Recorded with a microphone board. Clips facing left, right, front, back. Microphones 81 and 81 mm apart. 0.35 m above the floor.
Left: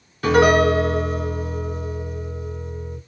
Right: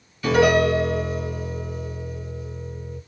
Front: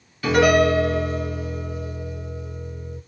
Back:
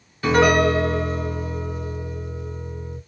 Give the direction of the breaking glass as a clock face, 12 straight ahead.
I don't hear breaking glass.